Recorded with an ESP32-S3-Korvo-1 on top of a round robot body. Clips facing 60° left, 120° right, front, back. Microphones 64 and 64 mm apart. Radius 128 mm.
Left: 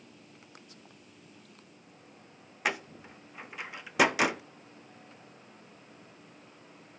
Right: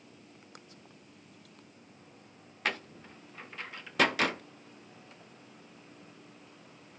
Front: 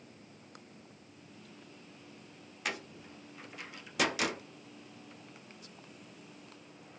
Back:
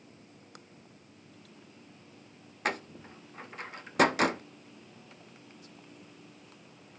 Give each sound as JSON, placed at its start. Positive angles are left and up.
{"t": 2.6, "sound": "a door slam", "azimuth_deg": 135, "distance_m": 0.6}